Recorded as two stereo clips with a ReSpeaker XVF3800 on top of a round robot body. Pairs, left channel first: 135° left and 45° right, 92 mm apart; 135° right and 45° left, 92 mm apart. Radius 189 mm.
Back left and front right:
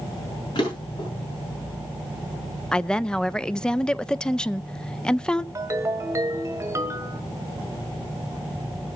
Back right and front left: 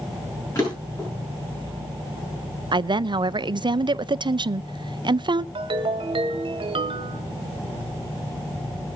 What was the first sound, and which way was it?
A drawer, 170° left.